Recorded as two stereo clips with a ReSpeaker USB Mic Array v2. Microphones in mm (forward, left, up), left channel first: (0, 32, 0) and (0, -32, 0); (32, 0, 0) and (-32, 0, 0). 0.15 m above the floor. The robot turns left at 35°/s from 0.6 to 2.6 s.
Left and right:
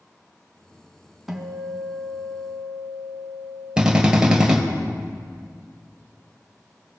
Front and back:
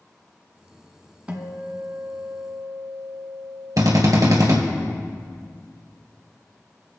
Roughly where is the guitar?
Behind.